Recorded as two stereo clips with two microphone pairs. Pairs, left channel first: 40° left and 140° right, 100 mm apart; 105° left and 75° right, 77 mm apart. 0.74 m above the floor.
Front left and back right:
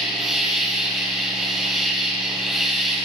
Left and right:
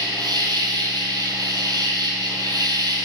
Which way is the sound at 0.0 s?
50° right.